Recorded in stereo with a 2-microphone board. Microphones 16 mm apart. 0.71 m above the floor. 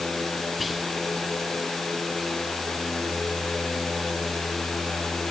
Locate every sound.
0.6 s whispering: 5° right (ahead or behind), 1.0 m